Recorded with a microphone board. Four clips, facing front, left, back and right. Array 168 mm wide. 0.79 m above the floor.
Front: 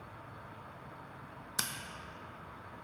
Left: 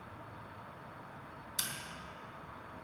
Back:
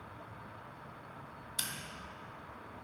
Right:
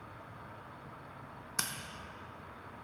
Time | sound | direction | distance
1.6 | scissors | 45° right | 0.7 m